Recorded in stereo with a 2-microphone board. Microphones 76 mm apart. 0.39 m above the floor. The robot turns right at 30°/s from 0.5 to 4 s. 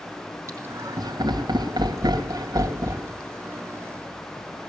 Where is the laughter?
40° right (ahead or behind), 2.5 m; by 3.1 s 50° right (ahead or behind), 2.5 m.